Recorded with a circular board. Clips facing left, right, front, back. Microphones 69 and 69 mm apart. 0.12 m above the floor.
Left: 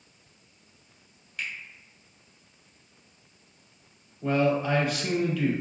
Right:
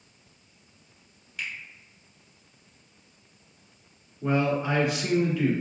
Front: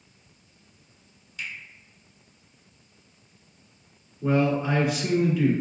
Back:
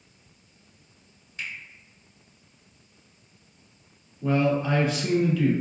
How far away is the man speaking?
About 1.3 m.